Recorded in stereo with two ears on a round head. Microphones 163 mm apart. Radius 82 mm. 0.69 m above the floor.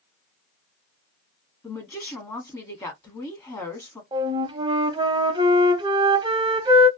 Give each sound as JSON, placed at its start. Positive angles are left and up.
{"t": 1.6, "sound": "a woman speaking", "side_deg": 15, "distance_m": 1.4}
{"t": 4.1, "sound": "a flute", "side_deg": -25, "distance_m": 0.7}